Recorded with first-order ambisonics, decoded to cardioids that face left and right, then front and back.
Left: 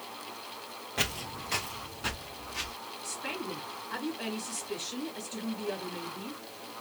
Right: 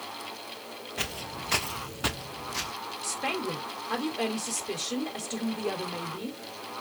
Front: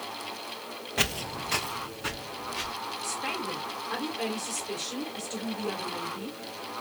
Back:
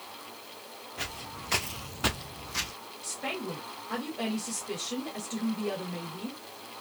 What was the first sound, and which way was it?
Footsteps, 10° left.